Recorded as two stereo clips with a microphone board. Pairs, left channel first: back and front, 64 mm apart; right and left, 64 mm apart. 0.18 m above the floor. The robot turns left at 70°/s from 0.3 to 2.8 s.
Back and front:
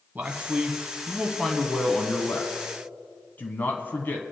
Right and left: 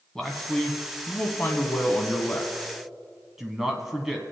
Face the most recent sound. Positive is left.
turn(degrees=165)